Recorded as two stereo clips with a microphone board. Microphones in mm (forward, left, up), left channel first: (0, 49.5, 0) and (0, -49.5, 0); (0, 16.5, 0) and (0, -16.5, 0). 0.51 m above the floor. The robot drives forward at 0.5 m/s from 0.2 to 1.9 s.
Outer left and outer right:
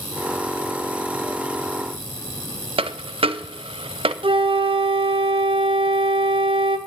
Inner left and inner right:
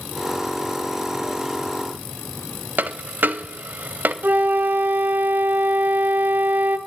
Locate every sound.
2.8 s a dropped coin: 70° right (ahead or behind), 0.6 m
4.2 s a flute: 65° right (ahead or behind), 0.8 m